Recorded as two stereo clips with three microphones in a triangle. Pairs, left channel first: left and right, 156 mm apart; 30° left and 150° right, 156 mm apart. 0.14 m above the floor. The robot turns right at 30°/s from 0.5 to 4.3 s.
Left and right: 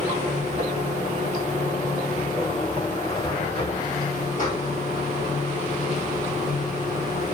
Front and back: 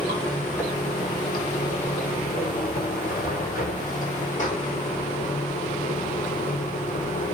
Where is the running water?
50° right, 1.8 m; by 7.3 s 65° left, 1.8 m.